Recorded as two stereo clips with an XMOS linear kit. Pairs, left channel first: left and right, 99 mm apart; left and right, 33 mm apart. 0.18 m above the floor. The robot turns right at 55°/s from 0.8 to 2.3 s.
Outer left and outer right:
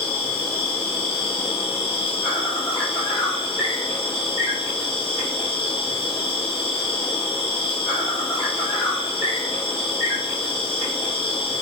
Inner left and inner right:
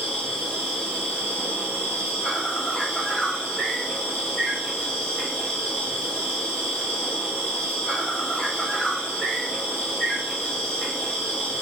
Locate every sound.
0.0 s an insect: 40° left, 3 m; by 11.6 s 120° left, 3 m